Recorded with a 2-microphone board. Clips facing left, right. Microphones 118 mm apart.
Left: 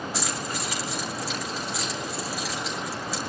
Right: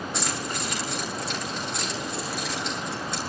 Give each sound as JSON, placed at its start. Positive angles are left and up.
{"t": 0.1, "sound": "keys jangling", "side_deg": 5, "distance_m": 6.5}